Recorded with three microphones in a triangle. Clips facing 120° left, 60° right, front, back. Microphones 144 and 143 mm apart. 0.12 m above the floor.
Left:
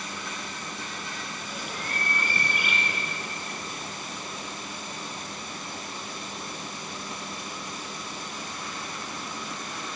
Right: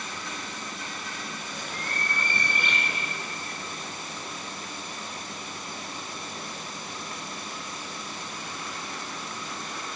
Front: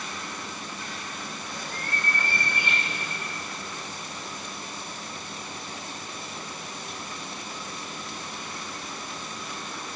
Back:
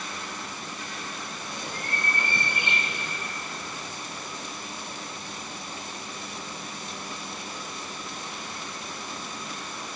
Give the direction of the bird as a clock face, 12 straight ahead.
6 o'clock.